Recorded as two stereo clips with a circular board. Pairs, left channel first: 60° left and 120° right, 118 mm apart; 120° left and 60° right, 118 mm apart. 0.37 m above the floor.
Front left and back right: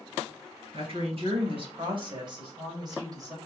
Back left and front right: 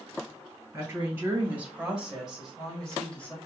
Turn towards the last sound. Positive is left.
turn(degrees=-170)